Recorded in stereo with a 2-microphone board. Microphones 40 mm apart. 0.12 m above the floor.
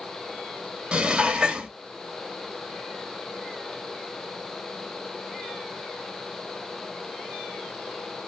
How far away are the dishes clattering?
About 0.9 m.